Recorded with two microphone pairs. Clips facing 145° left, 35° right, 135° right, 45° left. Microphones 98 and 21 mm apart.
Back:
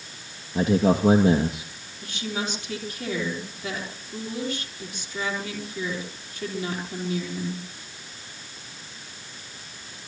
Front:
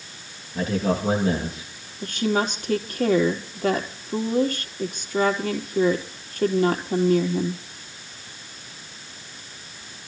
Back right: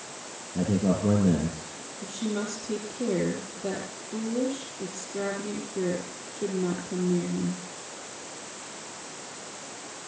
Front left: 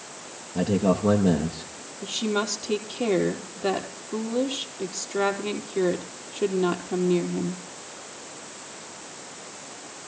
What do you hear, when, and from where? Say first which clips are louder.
0.6 s a man speaking: back 3 dB, front left 3 dB; 95° left, 2.5 m
2.0 s a woman speaking: front 8 dB, front left 5 dB; straight ahead, 3 m